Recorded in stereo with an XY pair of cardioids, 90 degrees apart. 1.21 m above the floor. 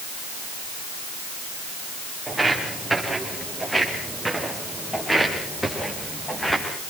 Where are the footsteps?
10° right, 9.5 m; by 6.7 s 10° left, 9.5 m.